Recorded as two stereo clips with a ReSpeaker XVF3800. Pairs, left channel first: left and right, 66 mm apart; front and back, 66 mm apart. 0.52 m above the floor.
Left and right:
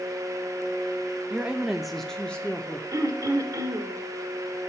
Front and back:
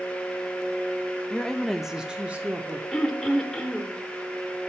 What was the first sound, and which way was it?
A woman speaking, 60° right.